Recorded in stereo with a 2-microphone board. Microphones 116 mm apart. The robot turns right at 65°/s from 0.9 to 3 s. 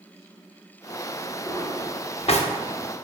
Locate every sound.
1.5 s a drawer: 20° left (ahead or behind), 0.6 m; by 2.5 s 60° left (ahead or behind), 0.6 m